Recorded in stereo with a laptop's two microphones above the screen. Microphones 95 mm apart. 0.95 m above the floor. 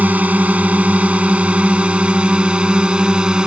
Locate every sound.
0.0 s a drone: 15° right (ahead or behind); by 3.5 s 10° right (ahead or behind)